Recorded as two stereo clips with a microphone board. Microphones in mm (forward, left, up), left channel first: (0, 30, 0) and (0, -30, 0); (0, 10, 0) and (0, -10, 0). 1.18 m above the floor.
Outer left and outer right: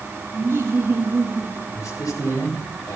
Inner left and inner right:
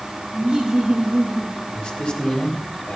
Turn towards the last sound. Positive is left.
turn(degrees=65)  # may be behind; listen again after turning